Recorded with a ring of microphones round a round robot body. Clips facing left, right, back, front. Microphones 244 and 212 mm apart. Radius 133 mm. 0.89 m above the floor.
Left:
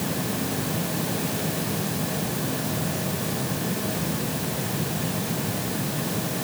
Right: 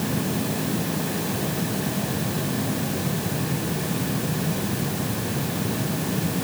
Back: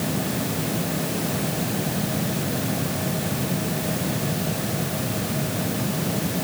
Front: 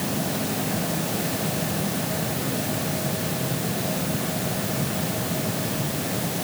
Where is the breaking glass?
I don't hear breaking glass.